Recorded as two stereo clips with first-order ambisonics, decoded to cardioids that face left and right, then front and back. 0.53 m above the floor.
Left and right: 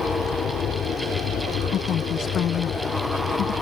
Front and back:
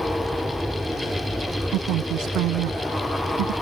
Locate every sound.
0.0 s an aircraft: 90° left
1.7 s a woman speaking: 145° left